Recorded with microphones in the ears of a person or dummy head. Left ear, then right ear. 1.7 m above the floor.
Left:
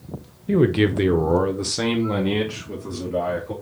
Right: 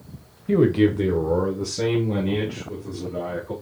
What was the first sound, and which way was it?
A man speaking, 5° right (ahead or behind).